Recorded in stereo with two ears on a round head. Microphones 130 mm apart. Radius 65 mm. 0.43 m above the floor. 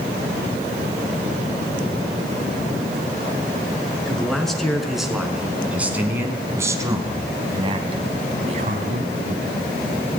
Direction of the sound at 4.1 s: 5° left (ahead or behind).